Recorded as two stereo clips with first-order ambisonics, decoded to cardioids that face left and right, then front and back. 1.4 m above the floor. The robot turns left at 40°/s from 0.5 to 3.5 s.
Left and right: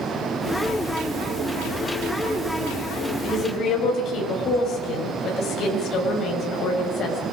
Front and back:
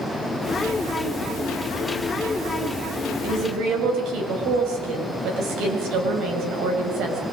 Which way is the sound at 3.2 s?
155° left.